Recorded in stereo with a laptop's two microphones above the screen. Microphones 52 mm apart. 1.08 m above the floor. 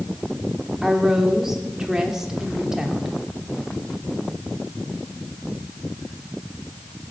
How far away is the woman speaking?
About 3 m.